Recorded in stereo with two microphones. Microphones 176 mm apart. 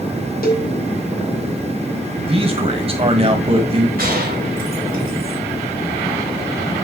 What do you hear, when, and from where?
0.4 s a cowbell: 55° left (ahead or behind), 1.5 m
2.3 s a man speaking: 35° right (ahead or behind), 1.4 m
4.0 s a gunshot: 55° right (ahead or behind), 3 m